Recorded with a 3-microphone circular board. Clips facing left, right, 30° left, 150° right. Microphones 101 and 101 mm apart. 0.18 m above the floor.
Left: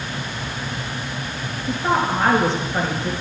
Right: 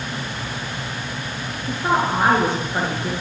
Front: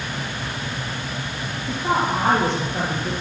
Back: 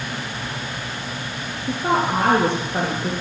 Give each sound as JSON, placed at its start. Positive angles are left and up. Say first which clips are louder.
{"t": 1.7, "sound": "a woman speaking", "louder": "even, back 1 dB", "azimuth_deg": -170, "distance_m": 3.0}